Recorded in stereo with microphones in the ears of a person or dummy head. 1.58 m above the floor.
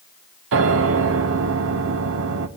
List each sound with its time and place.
0.5 s a piano: 70° right (ahead or behind), 1.2 m